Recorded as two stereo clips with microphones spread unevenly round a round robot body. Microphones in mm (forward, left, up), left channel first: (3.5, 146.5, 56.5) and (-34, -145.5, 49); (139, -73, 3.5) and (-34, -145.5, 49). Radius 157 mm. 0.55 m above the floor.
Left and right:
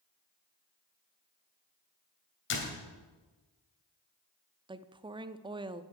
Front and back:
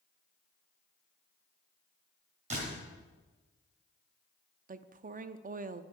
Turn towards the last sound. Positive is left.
turn(degrees=-150)